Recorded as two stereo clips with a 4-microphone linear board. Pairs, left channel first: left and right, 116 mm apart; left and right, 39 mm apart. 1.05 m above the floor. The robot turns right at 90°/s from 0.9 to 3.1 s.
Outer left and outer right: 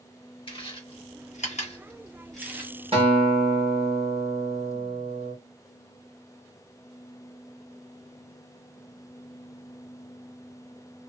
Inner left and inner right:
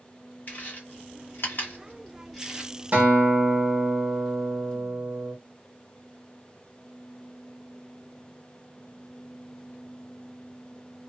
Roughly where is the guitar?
Right.